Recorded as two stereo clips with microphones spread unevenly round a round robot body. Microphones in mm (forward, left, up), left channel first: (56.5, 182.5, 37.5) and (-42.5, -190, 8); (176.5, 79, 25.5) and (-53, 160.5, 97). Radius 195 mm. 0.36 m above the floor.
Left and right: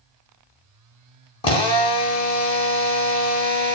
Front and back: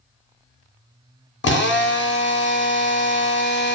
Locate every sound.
1.4 s a drill: 5° right, 0.8 m